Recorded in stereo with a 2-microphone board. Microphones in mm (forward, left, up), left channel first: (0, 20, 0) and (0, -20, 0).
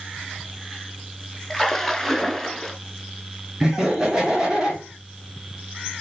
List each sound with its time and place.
1.5 s a splash: 5° left (ahead or behind), 0.5 m
3.6 s laughter: 15° right (ahead or behind), 1.8 m